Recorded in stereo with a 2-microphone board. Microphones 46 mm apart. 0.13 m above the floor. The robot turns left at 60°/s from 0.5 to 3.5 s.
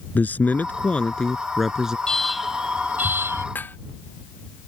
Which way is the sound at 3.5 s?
40° left (ahead or behind).